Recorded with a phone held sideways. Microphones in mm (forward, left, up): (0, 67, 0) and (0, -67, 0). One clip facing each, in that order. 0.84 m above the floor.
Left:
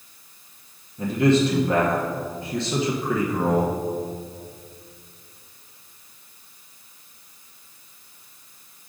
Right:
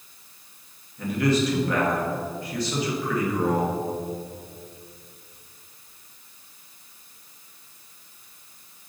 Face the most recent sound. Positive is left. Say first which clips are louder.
# left 4 dB
turn(degrees=25)  # may be behind; listen again after turning